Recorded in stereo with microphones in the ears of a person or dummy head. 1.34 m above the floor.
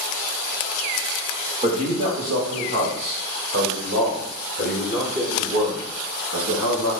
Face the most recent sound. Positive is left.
turn(degrees=-45)  # may be behind; listen again after turning